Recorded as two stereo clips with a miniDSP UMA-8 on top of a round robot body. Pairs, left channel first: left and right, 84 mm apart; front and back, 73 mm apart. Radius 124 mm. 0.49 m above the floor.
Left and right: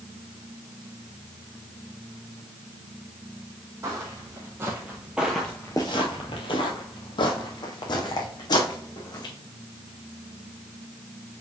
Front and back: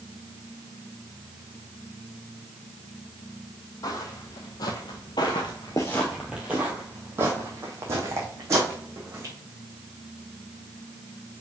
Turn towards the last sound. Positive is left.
turn(degrees=125)